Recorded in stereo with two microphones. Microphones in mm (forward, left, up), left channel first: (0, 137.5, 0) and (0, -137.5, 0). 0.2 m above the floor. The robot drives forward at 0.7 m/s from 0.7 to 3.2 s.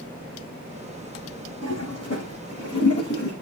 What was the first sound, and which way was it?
A toilet flushing, 60° left (ahead or behind).